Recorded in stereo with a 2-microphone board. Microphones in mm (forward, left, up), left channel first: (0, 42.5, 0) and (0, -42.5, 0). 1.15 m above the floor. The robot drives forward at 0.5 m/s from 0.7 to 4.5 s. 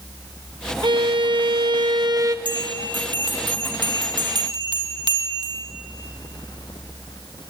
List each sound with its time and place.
0.8 s a violin: 70° right (ahead or behind), 0.7 m; by 2.4 s 50° right (ahead or behind), 0.9 m
2.5 s a bell: 70° right (ahead or behind), 1.8 m; by 5.7 s 60° right (ahead or behind), 1.8 m